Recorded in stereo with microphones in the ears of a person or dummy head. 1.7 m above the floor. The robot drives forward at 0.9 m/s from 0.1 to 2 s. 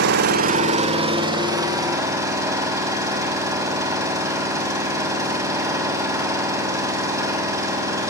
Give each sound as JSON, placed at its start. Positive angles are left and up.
{"t": 0.0, "sound": "an engine running", "side_deg": -65, "distance_m": 0.8}